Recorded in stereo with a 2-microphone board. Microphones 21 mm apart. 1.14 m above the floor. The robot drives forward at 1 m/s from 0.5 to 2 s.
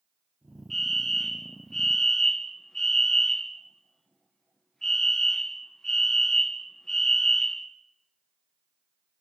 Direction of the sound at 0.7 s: 15° left (ahead or behind).